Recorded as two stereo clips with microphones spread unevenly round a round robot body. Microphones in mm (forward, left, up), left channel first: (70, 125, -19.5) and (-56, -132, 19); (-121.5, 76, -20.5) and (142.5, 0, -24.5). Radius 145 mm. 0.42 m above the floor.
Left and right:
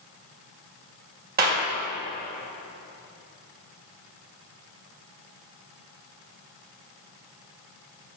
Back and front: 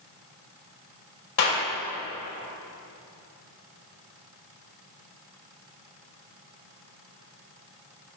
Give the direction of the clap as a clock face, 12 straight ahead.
6 o'clock.